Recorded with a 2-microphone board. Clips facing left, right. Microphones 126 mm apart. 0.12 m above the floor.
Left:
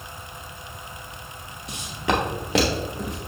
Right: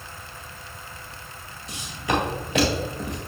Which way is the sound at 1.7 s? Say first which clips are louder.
Left 1 dB; 60° left (ahead or behind).